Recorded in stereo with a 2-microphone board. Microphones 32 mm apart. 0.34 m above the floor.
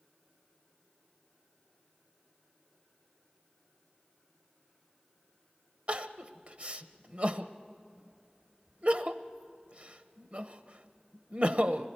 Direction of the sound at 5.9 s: 45° right (ahead or behind).